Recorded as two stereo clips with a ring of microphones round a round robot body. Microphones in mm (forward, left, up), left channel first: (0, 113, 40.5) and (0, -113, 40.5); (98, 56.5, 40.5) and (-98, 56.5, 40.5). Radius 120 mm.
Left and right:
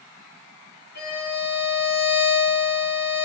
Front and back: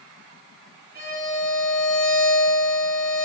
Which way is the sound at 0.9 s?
140° left.